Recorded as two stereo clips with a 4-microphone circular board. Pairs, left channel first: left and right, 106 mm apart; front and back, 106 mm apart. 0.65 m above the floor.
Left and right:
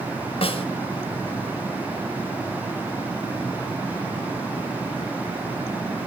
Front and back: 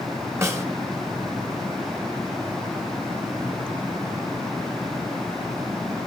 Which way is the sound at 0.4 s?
115° left.